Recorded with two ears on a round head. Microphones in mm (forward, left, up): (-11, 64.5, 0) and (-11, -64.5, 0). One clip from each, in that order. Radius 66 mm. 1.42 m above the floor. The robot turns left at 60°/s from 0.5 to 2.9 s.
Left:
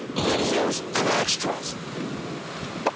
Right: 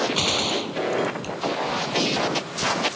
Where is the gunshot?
120° right; by 1.3 s 170° right.